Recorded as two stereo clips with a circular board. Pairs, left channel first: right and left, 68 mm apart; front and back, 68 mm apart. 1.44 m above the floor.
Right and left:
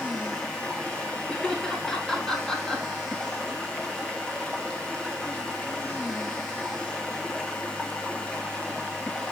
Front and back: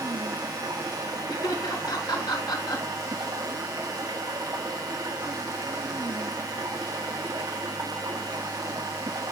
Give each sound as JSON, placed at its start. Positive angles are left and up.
{"t": 0.0, "sound": "running water", "azimuth_deg": -165, "distance_m": 1.8}
{"t": 1.3, "sound": "laughter", "azimuth_deg": -10, "distance_m": 3.5}